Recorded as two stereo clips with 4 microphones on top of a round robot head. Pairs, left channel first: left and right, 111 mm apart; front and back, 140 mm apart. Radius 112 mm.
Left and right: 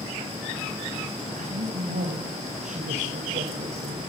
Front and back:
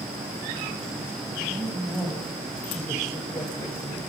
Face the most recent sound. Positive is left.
turn(degrees=-50)